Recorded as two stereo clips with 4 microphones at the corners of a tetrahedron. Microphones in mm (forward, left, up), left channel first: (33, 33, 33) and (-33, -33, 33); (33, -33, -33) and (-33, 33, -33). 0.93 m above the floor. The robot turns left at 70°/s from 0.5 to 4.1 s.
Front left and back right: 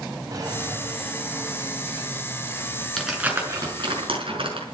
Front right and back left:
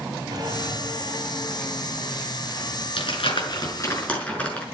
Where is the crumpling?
40° right, 6 m; by 4.6 s 120° right, 6 m.